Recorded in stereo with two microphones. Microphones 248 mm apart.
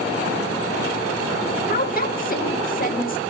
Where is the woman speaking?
35° left (ahead or behind), 1.0 m.